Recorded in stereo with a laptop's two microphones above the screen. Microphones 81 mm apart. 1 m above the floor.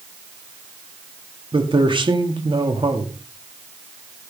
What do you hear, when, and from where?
1.5 s a man speaking: 70° right (ahead or behind), 2.5 m